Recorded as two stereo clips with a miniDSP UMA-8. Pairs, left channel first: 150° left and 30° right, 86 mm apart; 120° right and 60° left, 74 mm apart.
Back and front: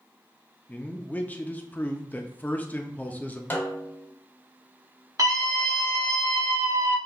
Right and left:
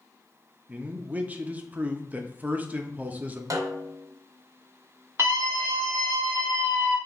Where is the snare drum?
85° left, 0.8 m.